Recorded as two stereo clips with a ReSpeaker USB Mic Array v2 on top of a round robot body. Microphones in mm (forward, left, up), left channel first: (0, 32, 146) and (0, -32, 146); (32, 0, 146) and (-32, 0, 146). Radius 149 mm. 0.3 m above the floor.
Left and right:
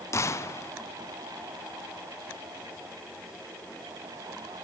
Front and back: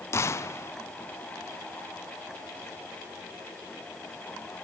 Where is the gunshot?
45° left, 1.1 m.